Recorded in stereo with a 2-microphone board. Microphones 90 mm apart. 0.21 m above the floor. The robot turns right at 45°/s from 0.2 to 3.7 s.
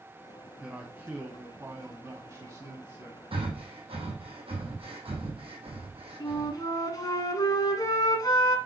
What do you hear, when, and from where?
0.6 s a man speaking: 160° right, 1.2 m; by 3.2 s 45° right, 1.2 m
3.3 s breathing: 70° right (ahead or behind), 2.5 m; by 6.6 s 85° right, 2.5 m
6.2 s a flute: 40° left (ahead or behind), 1.3 m